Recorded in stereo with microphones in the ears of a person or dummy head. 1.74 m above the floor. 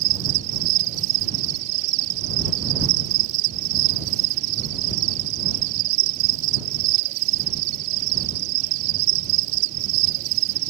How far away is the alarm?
I don't hear an alarm.